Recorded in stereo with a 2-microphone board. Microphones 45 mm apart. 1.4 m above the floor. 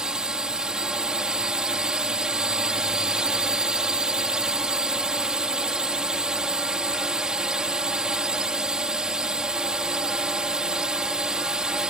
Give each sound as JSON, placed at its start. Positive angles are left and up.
{"t": 0.0, "sound": "a drone", "side_deg": -20}